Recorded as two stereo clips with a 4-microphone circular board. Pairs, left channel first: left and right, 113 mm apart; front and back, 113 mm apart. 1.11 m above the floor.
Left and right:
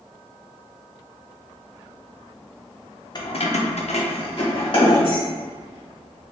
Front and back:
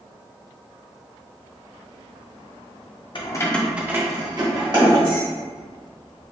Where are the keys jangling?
40° left, 0.5 m; by 5.2 s 140° left, 1.6 m.